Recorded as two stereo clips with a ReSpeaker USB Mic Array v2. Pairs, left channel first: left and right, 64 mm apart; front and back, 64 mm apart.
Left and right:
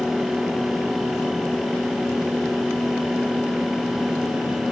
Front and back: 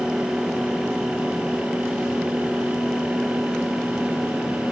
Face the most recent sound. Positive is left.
No sound to turn to.